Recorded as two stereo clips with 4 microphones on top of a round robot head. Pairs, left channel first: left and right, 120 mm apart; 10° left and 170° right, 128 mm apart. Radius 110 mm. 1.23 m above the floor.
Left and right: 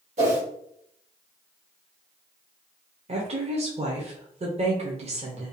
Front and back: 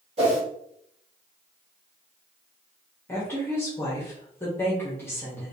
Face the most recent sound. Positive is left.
turn(degrees=-65)